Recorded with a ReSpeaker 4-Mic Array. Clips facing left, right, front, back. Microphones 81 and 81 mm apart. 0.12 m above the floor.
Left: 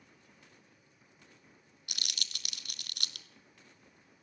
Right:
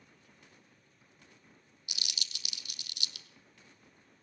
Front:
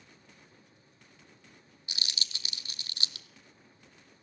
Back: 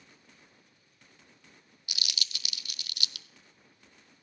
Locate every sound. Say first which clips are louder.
1.9 s crumpling: left 1 dB, back 1 dB; 60° left, 0.6 m